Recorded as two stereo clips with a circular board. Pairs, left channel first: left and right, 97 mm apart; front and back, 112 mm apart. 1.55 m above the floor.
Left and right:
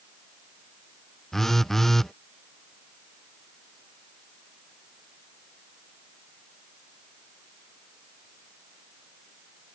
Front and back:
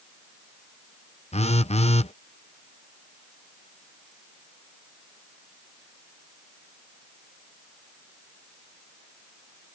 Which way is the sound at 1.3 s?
Straight ahead.